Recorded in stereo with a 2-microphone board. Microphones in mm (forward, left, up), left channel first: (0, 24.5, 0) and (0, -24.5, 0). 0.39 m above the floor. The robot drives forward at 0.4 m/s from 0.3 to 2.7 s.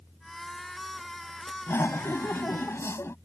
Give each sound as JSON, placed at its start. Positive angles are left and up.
{"t": 1.7, "sound": "laughter", "side_deg": 70}